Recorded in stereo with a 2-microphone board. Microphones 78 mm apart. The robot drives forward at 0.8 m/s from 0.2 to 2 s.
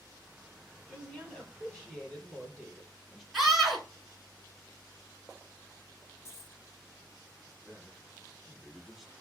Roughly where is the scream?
Centre.